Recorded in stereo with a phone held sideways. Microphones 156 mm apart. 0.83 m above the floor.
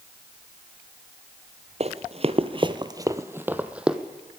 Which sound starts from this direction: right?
Running footsteps, at 1.8 s.